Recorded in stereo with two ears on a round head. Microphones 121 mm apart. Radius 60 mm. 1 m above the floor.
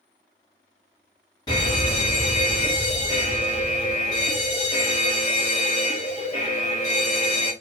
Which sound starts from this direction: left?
A fire alarm, at 1.5 s.